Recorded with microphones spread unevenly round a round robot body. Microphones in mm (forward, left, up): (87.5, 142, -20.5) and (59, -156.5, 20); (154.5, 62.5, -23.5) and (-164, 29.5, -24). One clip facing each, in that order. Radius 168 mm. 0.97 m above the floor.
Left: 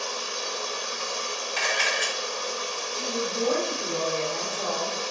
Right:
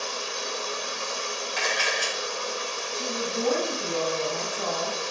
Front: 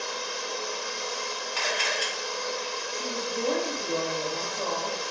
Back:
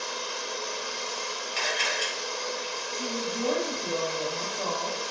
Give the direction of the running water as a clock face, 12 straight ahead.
7 o'clock.